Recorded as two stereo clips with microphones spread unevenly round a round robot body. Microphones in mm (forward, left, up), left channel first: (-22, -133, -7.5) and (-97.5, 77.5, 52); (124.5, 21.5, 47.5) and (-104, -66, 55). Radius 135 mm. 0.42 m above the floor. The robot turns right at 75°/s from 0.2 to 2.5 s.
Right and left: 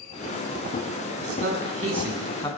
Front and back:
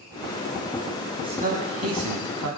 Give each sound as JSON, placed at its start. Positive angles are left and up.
{"t": 1.2, "sound": "a man speaking", "azimuth_deg": 125, "distance_m": 4.5}